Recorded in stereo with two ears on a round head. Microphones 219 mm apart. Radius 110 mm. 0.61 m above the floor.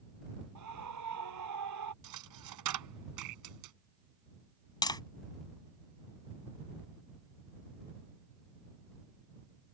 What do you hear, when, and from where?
0.6 s a scream: 85° right
2.0 s a dropped coin: 90° right
4.8 s tapping: 20° left (ahead or behind)